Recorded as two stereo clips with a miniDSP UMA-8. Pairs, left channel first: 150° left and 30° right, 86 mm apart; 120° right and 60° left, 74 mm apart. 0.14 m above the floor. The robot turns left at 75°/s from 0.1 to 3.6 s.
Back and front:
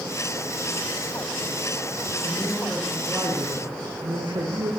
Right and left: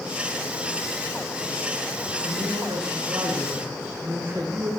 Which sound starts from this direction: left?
A man speaking, at 2.2 s.